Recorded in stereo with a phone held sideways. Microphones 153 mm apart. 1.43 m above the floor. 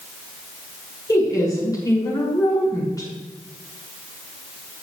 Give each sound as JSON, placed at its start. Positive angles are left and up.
{"t": 1.1, "sound": "a woman speaking", "side_deg": 25, "distance_m": 6.5}